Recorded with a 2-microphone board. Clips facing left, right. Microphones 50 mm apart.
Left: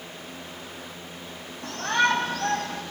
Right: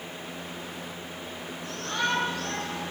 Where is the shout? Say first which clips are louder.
Left 7 dB; 75° left (ahead or behind), 4 m.